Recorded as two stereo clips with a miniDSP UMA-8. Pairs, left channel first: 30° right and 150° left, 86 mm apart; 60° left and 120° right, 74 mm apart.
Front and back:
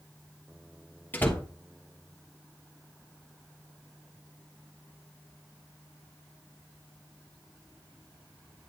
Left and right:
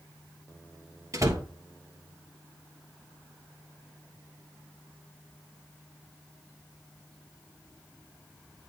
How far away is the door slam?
About 1.3 m.